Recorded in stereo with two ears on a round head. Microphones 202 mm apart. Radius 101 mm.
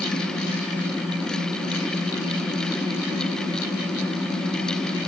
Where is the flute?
I don't hear a flute.